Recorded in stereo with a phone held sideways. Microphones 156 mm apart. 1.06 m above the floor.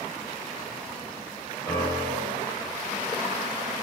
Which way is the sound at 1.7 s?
25° left (ahead or behind).